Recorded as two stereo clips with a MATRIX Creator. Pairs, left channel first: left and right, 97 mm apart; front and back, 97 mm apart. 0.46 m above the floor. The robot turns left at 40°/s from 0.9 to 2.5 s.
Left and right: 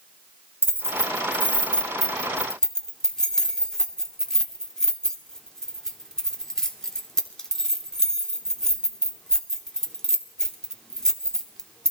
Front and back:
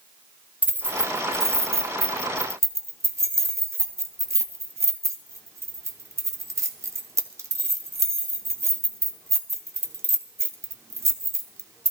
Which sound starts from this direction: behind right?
Keys jangling, at 0.6 s.